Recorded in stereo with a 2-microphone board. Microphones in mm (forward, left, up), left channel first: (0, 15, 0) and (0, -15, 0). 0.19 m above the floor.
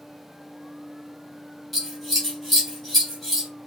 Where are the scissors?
5° left (ahead or behind), 2.0 m.